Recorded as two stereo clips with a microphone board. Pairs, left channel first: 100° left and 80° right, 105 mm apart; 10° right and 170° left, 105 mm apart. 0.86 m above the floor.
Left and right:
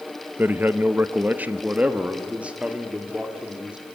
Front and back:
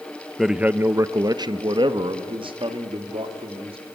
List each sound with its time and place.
0.4 s a man speaking: 100° right, 0.6 m; by 3.8 s 160° right, 2.5 m